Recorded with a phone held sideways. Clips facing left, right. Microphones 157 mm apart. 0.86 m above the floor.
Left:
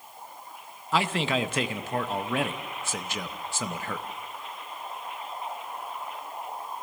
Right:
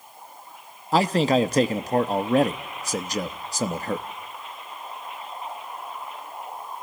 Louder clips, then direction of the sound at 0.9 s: Right 7 dB; 40° right (ahead or behind).